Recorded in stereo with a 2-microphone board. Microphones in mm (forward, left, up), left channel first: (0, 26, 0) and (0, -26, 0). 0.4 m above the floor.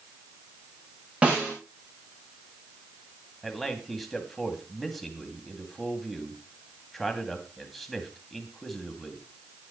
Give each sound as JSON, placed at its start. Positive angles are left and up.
{"t": 1.2, "sound": "a snare drum", "side_deg": -20, "distance_m": 10.0}
{"t": 3.4, "sound": "a man speaking", "side_deg": 0, "distance_m": 3.0}